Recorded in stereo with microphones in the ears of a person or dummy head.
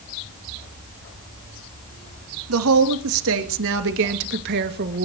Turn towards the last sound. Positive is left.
turn(degrees=-50)  # may be behind; listen again after turning